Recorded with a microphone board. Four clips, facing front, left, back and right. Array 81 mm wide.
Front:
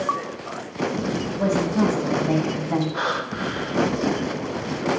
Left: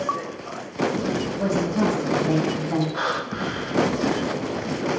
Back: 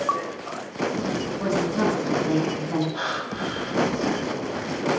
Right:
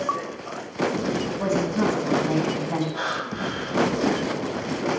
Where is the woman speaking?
25° left, 8 m.